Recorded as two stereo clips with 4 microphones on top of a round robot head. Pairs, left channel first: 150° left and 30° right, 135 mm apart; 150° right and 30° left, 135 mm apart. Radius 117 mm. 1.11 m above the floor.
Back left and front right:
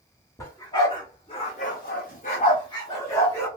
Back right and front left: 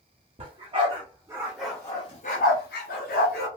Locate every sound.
0.4 s a dog barking: 80° left, 1.2 m; by 3.5 s 140° right, 1.2 m